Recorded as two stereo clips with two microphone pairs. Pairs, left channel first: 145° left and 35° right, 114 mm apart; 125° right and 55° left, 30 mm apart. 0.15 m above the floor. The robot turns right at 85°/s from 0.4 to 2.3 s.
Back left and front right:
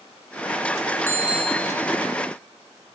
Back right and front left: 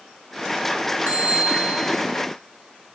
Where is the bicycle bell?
75° left, 2.5 m; by 1.9 s 145° left, 2.5 m.